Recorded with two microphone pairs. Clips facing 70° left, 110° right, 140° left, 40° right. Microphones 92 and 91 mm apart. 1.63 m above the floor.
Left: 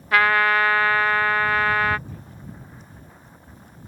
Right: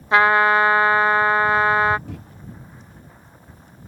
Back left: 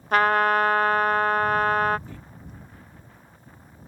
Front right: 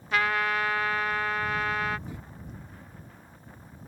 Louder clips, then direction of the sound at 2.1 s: Right 6 dB, front right 1 dB; 115° right.